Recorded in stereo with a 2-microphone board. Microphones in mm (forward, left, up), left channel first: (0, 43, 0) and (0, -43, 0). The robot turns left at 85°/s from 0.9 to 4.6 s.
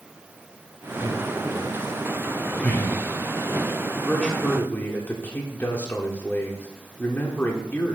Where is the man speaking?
5° left (ahead or behind), 1.2 m; by 8.0 s 25° left (ahead or behind), 1.2 m.